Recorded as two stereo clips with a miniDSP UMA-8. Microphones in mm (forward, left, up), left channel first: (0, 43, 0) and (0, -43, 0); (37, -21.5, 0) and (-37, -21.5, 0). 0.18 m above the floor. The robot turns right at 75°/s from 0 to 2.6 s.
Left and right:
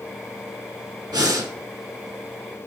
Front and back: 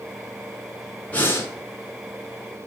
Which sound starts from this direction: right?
Breathing, at 1.1 s.